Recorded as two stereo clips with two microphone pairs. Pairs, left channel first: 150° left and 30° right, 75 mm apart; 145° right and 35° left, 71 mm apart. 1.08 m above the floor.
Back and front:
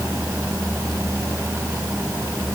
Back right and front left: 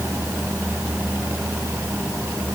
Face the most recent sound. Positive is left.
No sound to turn to.